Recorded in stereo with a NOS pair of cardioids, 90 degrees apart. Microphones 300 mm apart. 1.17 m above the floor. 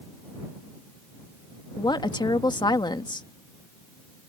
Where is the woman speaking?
15° left.